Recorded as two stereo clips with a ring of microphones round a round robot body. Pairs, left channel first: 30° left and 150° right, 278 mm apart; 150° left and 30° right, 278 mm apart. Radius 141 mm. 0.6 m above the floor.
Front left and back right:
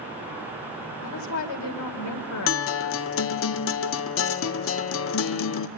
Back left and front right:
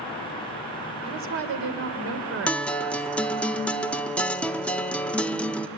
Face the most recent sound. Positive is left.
turn(degrees=65)